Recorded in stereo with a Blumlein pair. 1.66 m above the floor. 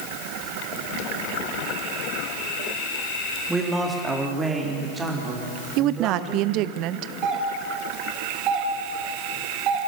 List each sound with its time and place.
3.5 s a man speaking: 5° right, 3.5 m; by 6.8 s 20° right, 7.5 m
5.8 s a woman speaking: 40° right, 0.6 m
7.2 s a doorbell: 35° right, 3 m